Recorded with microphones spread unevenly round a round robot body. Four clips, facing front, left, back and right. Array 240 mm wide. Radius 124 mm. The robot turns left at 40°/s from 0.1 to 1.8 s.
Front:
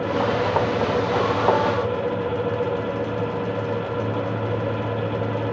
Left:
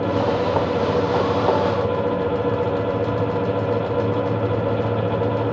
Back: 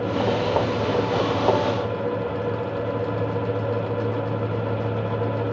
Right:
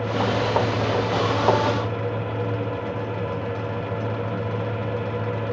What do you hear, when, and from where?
Only background noise.